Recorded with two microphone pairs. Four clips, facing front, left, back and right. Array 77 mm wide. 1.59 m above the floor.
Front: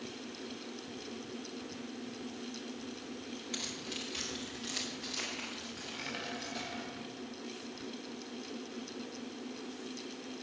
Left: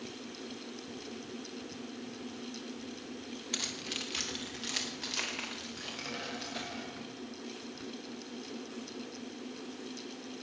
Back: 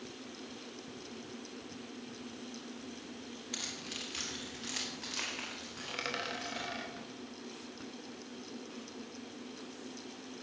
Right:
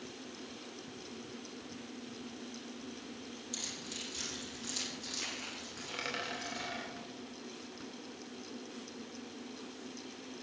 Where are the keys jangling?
105° left, 2.5 m; by 6.8 s 120° left, 6 m.